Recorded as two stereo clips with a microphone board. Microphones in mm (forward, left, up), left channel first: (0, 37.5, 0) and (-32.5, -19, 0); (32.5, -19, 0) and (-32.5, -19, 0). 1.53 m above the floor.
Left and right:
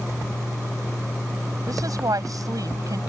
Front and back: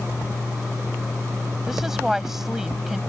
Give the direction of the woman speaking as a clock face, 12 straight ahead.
3 o'clock.